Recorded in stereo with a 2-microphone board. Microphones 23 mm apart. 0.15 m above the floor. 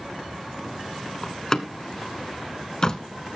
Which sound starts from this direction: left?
A door slam, at 1.2 s.